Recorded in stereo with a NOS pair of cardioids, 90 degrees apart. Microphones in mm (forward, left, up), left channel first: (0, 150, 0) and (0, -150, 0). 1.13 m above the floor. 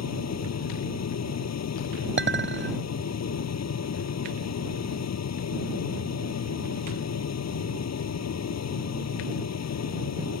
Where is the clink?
40° right.